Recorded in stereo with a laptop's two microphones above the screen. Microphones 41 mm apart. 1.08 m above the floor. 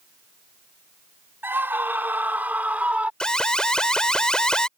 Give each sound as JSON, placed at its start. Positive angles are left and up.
{"t": 1.4, "sound": "a scream", "side_deg": -65}
{"t": 3.2, "sound": "an alarm", "side_deg": 20}